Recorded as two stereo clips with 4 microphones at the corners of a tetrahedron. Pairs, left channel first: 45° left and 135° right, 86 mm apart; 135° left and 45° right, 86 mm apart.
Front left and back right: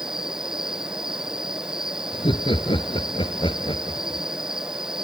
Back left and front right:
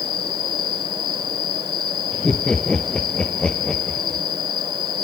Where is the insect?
55° right.